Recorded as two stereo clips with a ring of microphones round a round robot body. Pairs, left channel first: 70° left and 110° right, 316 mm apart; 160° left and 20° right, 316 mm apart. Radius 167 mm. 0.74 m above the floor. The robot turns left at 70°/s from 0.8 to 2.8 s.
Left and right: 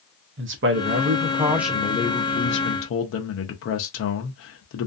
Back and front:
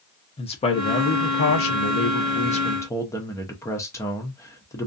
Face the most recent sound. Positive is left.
turn(degrees=80)